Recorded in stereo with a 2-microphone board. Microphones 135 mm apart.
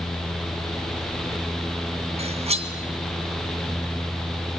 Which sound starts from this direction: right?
Cutlery clinking, at 2.2 s.